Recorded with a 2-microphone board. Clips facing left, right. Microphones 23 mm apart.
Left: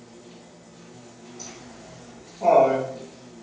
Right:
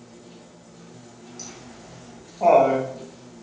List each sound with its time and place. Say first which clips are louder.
0.0 s an insect: even; 80° left, 1.2 m
1.4 s laughter: right 1 dB; 80° right, 1.3 m